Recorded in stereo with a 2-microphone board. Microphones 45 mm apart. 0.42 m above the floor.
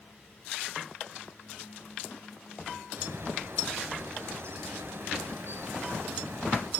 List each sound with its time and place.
3.0 s a bird: 70° right (ahead or behind), 5.5 m